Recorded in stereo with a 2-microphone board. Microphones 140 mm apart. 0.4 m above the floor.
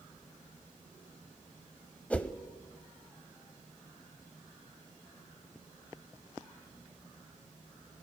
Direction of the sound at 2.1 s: 10° left (ahead or behind).